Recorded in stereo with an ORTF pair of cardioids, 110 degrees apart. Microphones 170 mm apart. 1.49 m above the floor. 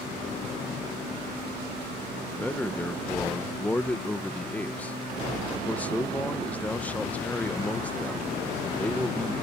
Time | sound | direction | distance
2.3 | a man speaking | 10° left | ?